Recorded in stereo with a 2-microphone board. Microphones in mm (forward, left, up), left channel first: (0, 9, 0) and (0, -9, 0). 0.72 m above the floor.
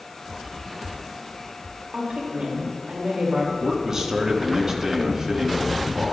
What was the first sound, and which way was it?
A woman speaking, 75° right (ahead or behind).